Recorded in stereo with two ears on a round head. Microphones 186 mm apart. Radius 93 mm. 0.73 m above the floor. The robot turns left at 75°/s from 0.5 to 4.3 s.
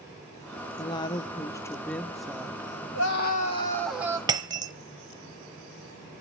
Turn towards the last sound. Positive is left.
turn(degrees=-20)  # may be behind; listen again after turning